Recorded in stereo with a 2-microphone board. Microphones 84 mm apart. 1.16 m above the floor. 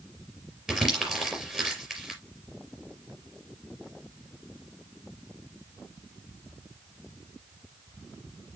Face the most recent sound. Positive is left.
turn(degrees=-10)  # may be behind; listen again after turning